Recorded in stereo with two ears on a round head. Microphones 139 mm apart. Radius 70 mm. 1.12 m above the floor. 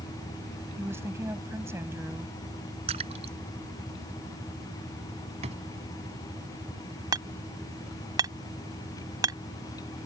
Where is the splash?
40° right (ahead or behind).